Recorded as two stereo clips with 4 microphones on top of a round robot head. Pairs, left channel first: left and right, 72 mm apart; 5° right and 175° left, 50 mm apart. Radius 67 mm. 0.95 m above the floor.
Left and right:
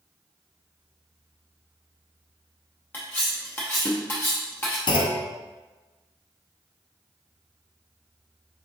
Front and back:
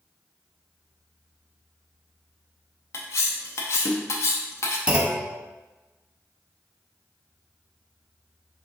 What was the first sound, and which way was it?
Cutlery clinking, 20° left.